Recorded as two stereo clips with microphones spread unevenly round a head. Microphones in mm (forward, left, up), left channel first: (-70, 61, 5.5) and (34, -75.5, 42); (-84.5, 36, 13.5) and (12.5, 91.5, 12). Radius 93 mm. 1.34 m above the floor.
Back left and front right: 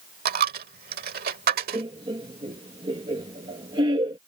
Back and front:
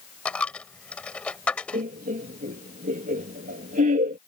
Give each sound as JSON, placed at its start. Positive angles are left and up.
{"t": 0.2, "sound": "a dropped coin", "azimuth_deg": -70}
{"t": 1.7, "sound": "laughter", "azimuth_deg": 15}